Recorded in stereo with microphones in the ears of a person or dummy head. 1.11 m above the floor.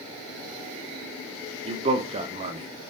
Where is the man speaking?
35° right (ahead or behind), 2.5 m.